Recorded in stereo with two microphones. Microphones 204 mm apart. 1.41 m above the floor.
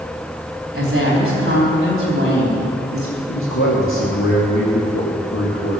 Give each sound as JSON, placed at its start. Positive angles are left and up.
{"t": 0.7, "sound": "a woman speaking", "side_deg": -80, "distance_m": 4.0}
{"t": 3.3, "sound": "a man speaking", "side_deg": 70, "distance_m": 1.7}